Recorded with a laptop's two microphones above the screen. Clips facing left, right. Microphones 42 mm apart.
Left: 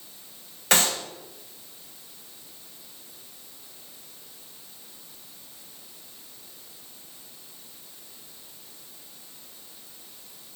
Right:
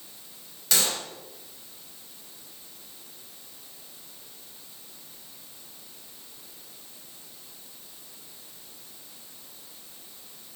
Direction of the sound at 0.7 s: 40° left (ahead or behind).